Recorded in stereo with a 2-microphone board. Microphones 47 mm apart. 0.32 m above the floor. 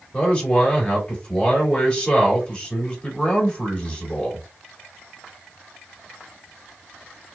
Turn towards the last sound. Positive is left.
turn(degrees=25)  # may be behind; listen again after turning